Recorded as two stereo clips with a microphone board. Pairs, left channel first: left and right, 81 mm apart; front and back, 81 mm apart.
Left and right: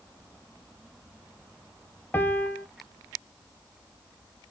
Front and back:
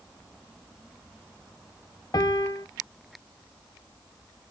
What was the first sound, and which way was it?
A piano, 30° left.